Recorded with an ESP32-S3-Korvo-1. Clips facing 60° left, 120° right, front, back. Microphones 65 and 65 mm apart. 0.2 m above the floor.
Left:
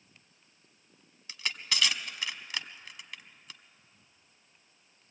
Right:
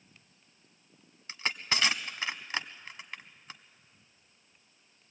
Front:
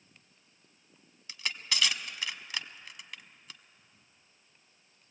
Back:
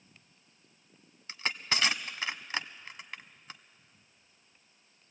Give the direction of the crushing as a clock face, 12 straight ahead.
5 o'clock.